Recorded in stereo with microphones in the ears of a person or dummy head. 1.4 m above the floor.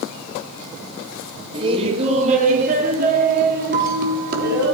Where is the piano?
35° right (ahead or behind), 7 m.